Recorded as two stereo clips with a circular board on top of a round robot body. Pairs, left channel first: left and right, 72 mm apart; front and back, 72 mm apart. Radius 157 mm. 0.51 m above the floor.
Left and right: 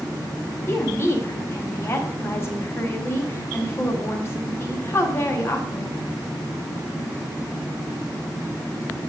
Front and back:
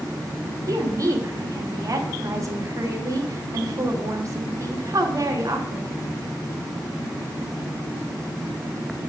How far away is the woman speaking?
About 1.7 m.